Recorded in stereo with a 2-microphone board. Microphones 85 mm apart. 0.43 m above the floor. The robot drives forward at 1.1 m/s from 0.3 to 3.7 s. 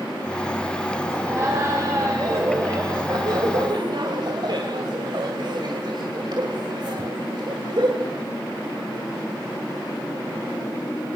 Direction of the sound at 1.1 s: 30° right (ahead or behind).